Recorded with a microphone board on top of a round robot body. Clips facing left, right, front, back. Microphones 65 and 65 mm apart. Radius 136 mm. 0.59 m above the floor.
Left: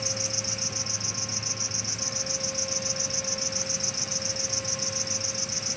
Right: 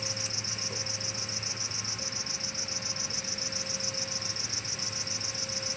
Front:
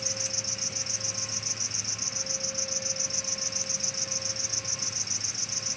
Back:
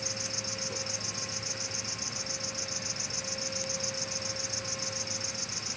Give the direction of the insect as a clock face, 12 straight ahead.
5 o'clock.